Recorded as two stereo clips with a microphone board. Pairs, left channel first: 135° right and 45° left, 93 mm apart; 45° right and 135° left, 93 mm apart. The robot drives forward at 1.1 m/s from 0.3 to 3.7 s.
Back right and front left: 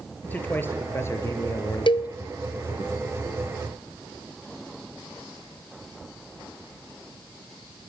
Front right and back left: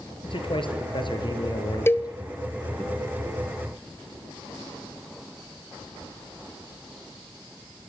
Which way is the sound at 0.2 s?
65° right.